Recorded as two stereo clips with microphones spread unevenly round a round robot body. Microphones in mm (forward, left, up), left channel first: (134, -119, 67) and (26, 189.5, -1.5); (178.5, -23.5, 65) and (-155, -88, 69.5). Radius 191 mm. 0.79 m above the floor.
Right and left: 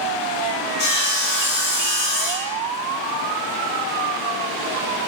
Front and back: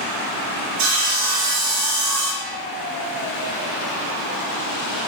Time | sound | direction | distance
0.8 | sawing | 140° right | 0.6 m